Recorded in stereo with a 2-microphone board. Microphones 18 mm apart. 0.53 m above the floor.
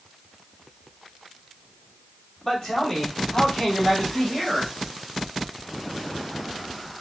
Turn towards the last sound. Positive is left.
turn(degrees=30)  # may be behind; listen again after turning